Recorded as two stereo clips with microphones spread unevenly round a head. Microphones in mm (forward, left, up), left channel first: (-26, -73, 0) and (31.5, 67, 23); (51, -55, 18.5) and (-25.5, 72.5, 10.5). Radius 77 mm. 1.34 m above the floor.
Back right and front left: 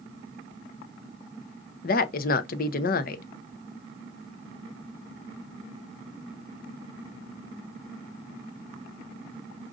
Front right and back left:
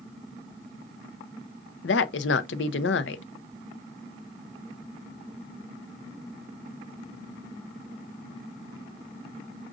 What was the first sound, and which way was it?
A woman speaking, 80° right.